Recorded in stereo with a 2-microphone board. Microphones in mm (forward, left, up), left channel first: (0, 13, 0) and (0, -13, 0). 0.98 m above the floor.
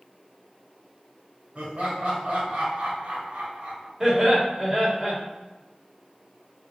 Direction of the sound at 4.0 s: 25° right (ahead or behind).